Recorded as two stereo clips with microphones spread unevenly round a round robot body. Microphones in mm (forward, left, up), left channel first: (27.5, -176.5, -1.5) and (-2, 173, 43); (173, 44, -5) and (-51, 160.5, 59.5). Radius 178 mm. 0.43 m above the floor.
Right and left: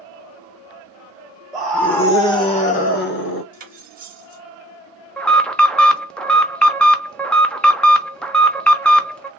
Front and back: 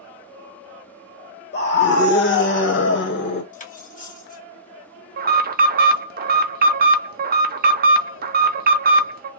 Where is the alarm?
155° right, 0.6 m.